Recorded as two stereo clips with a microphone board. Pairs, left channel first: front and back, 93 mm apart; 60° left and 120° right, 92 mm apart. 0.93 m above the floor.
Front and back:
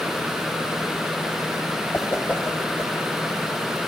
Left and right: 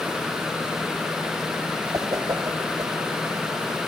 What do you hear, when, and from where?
1.9 s a whoosh: 70° right, 1.0 m